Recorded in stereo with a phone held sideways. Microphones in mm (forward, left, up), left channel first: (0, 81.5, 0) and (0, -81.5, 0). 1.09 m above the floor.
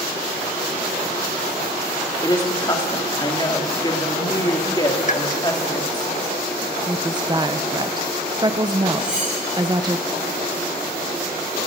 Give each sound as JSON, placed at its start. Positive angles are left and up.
{"t": 2.2, "sound": "a woman speaking", "side_deg": 25, "distance_m": 2.0}
{"t": 5.1, "sound": "a pop", "side_deg": 50, "distance_m": 0.9}
{"t": 6.9, "sound": "a woman speaking", "side_deg": -25, "distance_m": 0.7}
{"t": 9.0, "sound": "cutlery clinking", "side_deg": -5, "distance_m": 9.0}